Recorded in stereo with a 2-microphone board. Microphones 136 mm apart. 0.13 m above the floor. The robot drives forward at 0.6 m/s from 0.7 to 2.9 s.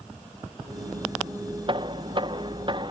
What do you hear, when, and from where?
1.7 s knocking: 40° right (ahead or behind); by 2.9 s 35° right (ahead or behind)